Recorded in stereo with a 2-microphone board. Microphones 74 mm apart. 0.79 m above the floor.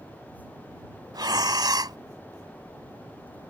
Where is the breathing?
70° right (ahead or behind).